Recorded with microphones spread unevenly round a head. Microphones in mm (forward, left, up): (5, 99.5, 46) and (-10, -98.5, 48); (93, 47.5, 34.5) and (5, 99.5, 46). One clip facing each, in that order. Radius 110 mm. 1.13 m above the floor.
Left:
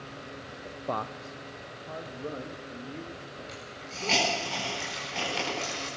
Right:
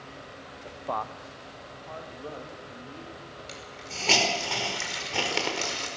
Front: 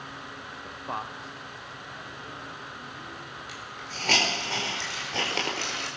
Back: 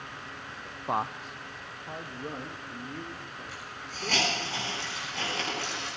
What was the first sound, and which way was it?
A man speaking, 15° left.